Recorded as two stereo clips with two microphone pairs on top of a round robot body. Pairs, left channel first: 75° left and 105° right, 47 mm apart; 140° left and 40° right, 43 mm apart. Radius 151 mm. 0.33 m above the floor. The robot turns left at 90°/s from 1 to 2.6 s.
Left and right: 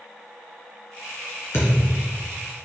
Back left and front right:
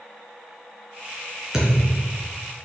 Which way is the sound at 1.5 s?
40° left.